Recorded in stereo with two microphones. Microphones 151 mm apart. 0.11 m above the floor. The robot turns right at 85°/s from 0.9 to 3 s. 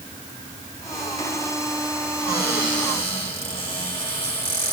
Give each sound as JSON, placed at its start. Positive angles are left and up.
{"t": 2.3, "sound": "a cupboard door", "azimuth_deg": 80, "distance_m": 7.5}